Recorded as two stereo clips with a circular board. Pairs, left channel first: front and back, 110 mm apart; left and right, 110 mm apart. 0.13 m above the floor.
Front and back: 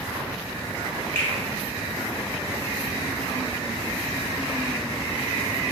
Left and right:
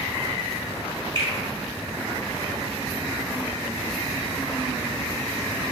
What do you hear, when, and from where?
1.1 s a finger snap: 70° right, 1.7 m